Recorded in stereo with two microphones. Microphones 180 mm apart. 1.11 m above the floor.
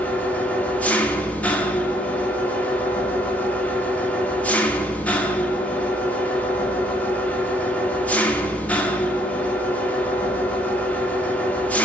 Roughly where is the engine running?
Centre.